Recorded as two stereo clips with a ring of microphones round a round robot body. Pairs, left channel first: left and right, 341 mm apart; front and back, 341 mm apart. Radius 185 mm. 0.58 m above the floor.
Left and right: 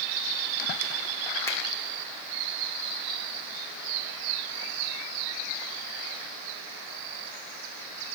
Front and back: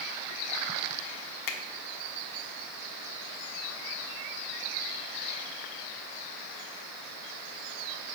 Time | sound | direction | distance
1.5 | a finger snap | 10° left | 1.3 m